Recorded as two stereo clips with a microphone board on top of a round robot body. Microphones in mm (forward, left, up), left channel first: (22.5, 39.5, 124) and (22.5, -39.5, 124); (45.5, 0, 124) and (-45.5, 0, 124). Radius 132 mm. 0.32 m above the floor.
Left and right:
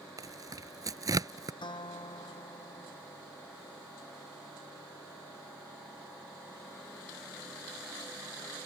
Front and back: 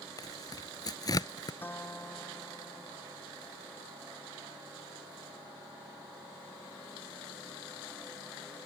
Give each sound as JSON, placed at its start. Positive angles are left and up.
{"t": 0.2, "sound": "tearing paper", "azimuth_deg": -45}
{"t": 1.6, "sound": "a guitar", "azimuth_deg": 70}